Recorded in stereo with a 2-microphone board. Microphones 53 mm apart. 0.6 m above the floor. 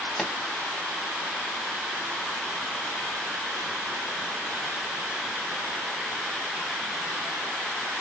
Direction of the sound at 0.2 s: 5° left (ahead or behind).